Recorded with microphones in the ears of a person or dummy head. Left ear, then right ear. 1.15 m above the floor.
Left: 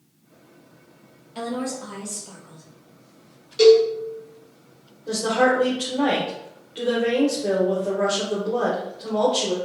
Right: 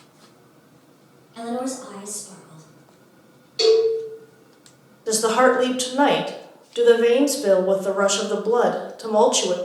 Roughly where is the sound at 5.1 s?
Right.